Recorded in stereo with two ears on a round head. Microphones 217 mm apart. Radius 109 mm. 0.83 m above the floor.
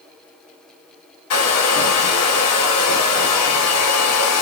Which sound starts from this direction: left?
A hair dryer, at 1.3 s.